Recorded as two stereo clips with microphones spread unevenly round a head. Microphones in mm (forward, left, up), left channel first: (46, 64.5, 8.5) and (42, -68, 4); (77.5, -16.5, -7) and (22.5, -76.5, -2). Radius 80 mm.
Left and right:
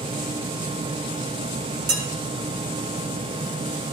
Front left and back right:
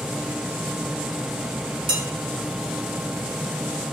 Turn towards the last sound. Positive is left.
turn(degrees=-125)